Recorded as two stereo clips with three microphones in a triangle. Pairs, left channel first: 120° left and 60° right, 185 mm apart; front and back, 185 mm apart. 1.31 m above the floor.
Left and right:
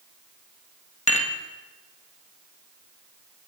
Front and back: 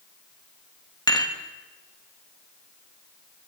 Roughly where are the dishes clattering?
Ahead left.